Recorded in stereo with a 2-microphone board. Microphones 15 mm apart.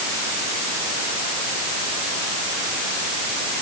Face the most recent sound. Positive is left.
No sound to turn to.